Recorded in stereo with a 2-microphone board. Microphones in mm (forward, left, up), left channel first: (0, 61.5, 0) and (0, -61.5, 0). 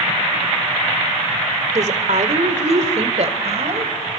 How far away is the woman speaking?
About 1.7 m.